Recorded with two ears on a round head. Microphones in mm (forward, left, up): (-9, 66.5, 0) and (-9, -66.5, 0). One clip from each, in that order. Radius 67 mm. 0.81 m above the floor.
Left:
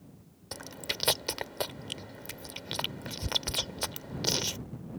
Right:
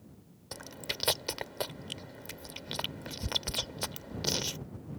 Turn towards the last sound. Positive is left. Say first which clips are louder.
# left 2 dB
turn(degrees=5)  # may be behind; listen again after turning